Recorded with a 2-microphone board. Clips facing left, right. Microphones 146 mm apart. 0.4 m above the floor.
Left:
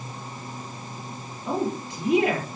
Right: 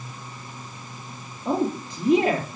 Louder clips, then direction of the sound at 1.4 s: Right 3 dB; 35° right (ahead or behind).